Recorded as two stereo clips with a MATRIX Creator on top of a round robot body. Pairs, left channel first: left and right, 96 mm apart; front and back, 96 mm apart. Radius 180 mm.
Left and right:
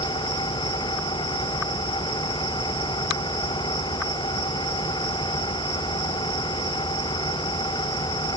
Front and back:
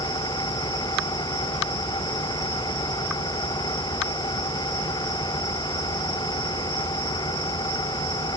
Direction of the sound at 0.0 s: 45° left.